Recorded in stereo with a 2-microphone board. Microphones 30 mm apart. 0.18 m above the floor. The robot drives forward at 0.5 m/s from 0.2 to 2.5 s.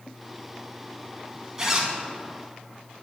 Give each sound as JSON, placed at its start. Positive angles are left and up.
{"t": 1.6, "sound": "a zipper", "side_deg": -15, "distance_m": 1.0}